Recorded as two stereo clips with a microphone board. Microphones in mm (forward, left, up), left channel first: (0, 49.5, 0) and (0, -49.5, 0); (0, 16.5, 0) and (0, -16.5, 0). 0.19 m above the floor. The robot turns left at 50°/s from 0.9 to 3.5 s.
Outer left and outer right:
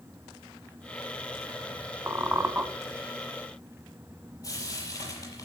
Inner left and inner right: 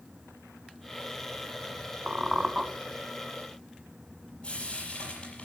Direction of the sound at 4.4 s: 35° left (ahead or behind).